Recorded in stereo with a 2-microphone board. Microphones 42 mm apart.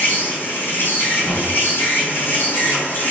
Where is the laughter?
No laughter in this recording.